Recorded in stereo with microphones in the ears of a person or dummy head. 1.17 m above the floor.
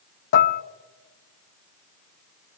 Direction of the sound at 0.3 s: 55° left (ahead or behind).